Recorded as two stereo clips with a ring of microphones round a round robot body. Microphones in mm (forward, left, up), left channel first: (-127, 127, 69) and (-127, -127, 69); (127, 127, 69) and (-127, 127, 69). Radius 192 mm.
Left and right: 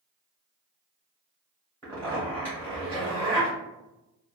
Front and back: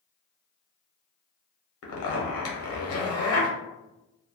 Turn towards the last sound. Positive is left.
turn(degrees=10)